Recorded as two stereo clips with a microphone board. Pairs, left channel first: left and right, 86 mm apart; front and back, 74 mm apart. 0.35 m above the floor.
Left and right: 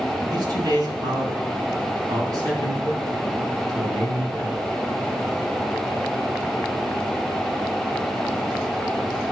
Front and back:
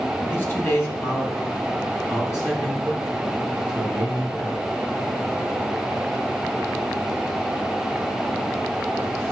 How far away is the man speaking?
About 3 m.